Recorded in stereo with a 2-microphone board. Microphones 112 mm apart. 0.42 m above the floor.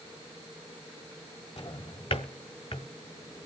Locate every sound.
1.6 s a drawer: 60° left (ahead or behind), 1.3 m